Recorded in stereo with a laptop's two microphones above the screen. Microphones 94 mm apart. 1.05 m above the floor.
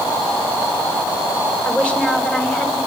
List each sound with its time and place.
1.6 s a woman speaking: 10° left (ahead or behind), 7 m